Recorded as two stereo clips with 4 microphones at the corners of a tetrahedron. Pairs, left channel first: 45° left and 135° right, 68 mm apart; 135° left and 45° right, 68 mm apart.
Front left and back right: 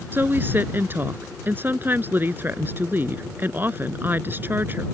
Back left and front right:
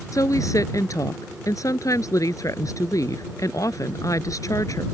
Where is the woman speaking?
165° left.